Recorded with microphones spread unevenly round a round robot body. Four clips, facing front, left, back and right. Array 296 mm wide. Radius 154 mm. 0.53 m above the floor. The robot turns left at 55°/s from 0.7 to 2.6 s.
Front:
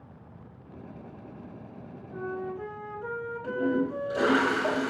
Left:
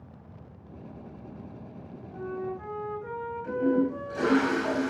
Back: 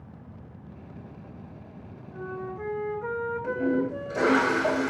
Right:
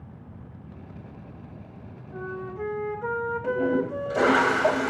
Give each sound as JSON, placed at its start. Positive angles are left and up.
{"t": 2.1, "sound": "a flute", "azimuth_deg": -75, "distance_m": 3.5}
{"t": 3.4, "sound": "a toilet flushing", "azimuth_deg": -100, "distance_m": 4.0}